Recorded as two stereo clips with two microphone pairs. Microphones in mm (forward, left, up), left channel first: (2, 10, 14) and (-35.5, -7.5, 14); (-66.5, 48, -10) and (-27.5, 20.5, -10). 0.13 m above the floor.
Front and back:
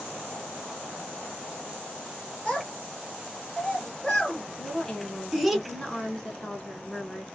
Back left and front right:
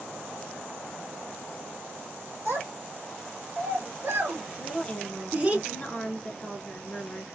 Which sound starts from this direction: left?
A woman speaking, at 4.6 s.